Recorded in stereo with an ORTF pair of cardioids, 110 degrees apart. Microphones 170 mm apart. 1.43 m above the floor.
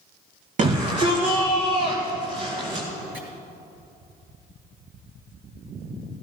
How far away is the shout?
About 2.5 m.